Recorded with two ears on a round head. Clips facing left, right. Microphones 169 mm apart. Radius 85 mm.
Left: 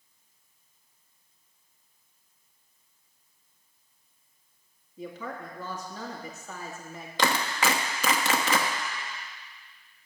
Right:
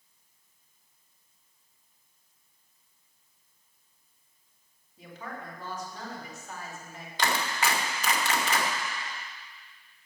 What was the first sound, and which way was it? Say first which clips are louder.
A woman speaking: left 4 dB; 75° left (ahead or behind).